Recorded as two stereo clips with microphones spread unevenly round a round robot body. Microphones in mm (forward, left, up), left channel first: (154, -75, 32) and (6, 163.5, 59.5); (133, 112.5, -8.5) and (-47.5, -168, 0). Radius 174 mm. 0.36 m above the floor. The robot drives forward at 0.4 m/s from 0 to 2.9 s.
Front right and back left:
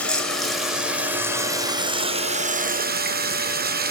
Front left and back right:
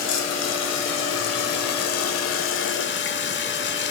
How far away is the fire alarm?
No fire alarm in this recording.